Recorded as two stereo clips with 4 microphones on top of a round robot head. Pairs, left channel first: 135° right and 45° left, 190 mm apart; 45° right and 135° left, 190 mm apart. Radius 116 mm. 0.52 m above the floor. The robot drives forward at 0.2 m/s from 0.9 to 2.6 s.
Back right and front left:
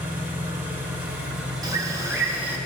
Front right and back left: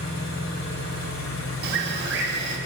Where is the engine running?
35° right, 1.0 m; by 2.7 s 50° right, 0.8 m.